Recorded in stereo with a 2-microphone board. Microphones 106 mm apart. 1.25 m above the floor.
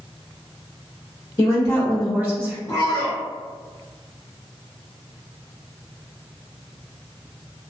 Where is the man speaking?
30° left (ahead or behind), 0.6 m.